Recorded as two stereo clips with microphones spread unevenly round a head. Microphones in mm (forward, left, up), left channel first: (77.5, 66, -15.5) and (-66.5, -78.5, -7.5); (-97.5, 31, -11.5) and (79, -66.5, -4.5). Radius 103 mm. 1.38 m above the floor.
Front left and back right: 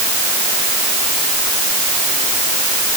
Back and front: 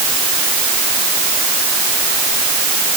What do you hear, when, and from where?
Only background noise.